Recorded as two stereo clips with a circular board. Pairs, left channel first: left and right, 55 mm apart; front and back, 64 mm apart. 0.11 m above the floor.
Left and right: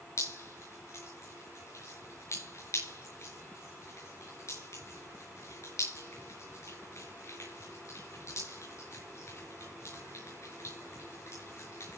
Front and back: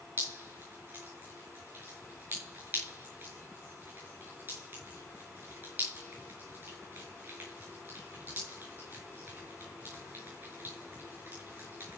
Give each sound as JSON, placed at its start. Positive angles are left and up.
{"t": 0.2, "sound": "dripping", "azimuth_deg": 125, "distance_m": 6.5}